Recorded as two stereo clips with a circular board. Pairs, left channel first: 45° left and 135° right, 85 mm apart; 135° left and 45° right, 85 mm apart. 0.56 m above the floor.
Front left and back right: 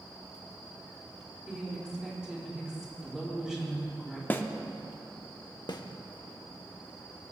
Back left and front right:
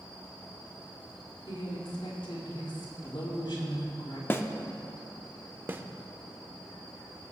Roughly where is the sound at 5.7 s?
Ahead.